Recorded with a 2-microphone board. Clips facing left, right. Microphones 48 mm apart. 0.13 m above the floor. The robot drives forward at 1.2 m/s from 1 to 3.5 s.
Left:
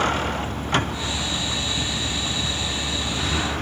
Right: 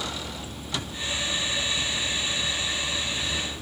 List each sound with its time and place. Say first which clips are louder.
0.0 s a vehicle: left 11 dB; 50° left (ahead or behind); by 3.6 s 60° left (ahead or behind)